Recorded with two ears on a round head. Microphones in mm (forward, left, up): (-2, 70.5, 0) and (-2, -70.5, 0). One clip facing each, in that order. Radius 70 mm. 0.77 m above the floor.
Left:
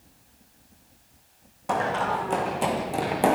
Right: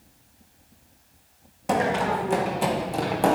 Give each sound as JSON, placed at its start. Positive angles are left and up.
{"t": 1.7, "sound": "running footsteps", "side_deg": -25, "distance_m": 2.5}